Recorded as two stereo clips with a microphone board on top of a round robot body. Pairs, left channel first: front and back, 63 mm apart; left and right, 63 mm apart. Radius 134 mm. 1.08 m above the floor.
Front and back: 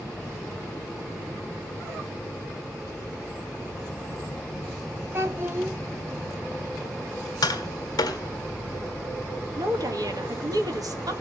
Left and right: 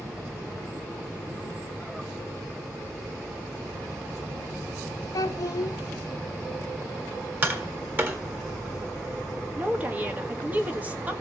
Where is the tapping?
30° right, 1.6 m.